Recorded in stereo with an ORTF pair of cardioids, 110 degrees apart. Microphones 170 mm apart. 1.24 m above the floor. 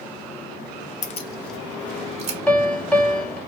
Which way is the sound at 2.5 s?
5° left.